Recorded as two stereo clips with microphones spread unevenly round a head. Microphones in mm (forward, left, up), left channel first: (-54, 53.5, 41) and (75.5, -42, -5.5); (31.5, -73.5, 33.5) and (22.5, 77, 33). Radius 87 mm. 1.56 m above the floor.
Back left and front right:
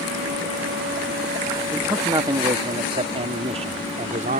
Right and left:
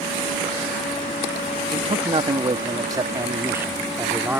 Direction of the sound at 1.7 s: 40° left.